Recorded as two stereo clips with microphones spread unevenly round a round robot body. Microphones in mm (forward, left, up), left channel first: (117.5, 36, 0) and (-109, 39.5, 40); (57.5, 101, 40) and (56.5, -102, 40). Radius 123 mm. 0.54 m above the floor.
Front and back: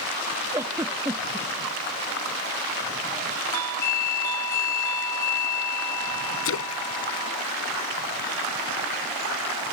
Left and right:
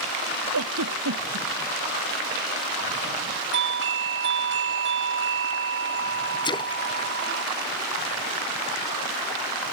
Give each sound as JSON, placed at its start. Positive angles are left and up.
{"t": 0.5, "sound": "a giggle", "azimuth_deg": -100}
{"t": 3.5, "sound": "a doorbell", "azimuth_deg": -75}
{"t": 6.5, "sound": "a splash", "azimuth_deg": 20}